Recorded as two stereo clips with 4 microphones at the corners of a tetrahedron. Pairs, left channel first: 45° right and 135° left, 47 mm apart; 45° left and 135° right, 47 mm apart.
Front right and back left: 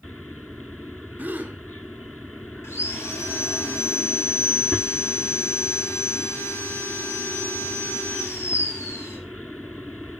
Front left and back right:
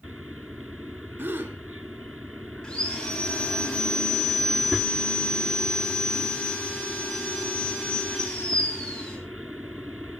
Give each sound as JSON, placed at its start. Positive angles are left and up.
{"t": 1.2, "sound": "a gasp", "azimuth_deg": -175, "distance_m": 2.0}
{"t": 2.6, "sound": "sawing", "azimuth_deg": -30, "distance_m": 7.5}